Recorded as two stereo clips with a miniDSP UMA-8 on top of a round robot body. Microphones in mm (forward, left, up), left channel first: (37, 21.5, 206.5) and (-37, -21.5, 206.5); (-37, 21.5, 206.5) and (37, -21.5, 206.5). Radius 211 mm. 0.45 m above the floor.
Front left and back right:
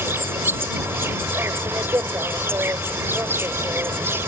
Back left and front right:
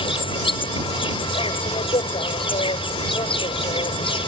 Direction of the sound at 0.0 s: 145° left.